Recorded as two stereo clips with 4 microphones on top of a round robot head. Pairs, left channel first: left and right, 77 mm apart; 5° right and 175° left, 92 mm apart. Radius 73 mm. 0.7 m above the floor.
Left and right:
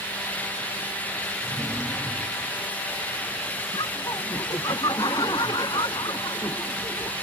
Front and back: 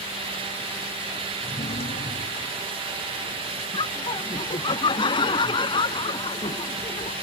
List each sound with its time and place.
1.4 s a drawer: 5° left
3.7 s laughter: 30° left